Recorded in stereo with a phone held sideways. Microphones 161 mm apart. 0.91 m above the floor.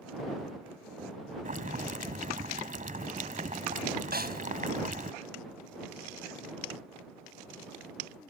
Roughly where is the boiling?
Right.